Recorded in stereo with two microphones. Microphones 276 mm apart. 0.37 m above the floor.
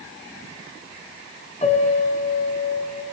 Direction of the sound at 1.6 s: 25° left (ahead or behind).